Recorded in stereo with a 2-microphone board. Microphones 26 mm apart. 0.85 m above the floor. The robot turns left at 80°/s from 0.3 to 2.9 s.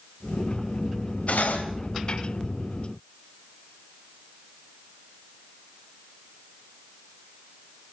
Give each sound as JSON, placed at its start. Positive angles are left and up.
{"t": 1.3, "sound": "cutlery clinking", "azimuth_deg": 100, "distance_m": 2.5}